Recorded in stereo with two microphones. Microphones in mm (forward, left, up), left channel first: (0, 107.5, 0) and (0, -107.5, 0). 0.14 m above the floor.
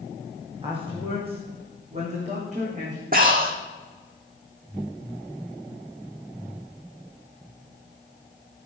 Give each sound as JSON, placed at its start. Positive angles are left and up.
{"t": 0.6, "sound": "a man speaking", "side_deg": -25, "distance_m": 8.5}
{"t": 3.1, "sound": "breathing", "side_deg": -45, "distance_m": 2.0}